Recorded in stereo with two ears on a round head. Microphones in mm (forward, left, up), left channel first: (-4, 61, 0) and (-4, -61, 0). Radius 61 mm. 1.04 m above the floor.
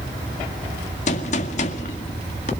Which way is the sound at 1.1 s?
55° left (ahead or behind).